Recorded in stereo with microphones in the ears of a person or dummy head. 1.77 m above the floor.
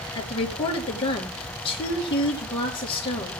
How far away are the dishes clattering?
I don't hear dishes clattering.